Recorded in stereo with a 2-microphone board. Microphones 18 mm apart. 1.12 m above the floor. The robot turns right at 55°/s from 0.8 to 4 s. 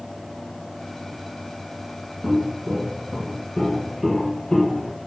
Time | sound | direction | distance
2.2 | footsteps | 25° right (ahead or behind) | 1.8 m